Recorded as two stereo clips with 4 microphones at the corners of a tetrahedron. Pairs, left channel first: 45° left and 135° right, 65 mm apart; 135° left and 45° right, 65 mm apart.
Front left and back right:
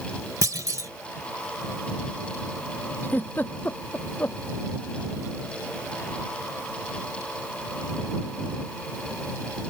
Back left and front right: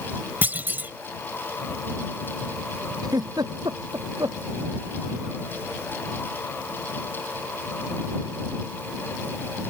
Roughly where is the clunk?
Right.